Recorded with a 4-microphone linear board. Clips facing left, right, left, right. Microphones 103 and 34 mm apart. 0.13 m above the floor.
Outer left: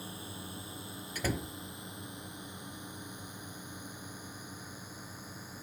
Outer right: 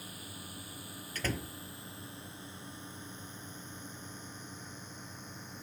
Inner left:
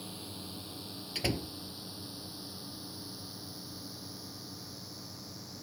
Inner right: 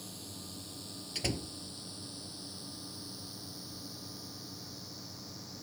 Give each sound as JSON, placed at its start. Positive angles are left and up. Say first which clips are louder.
{"t": 0.0, "sound": "a drone", "louder": "outer left 4 dB, inner left 3 dB", "side_deg": 30}
{"t": 1.1, "sound": "a door slam", "louder": "outer left 2 dB, inner left 2 dB", "side_deg": 10}